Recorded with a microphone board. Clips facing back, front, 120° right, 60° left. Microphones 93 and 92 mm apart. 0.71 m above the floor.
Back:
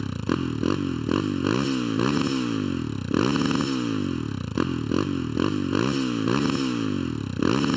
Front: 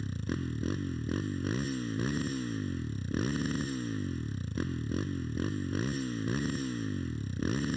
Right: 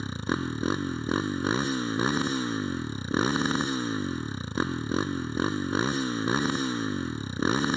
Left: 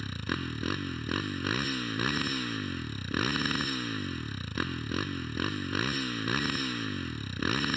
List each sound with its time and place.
0.0 s a motorcycle: 175° left